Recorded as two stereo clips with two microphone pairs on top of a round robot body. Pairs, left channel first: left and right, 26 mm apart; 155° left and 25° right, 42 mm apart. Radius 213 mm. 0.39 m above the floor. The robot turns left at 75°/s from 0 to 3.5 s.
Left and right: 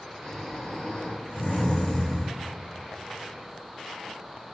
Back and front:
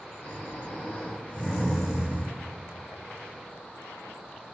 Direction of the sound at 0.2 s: 175° left.